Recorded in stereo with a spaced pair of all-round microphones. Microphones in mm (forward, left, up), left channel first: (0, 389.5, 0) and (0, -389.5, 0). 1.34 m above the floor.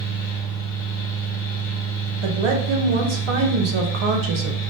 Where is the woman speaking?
40° right (ahead or behind), 0.5 m.